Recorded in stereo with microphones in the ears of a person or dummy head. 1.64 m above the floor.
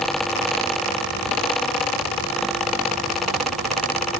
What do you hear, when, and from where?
Only background noise.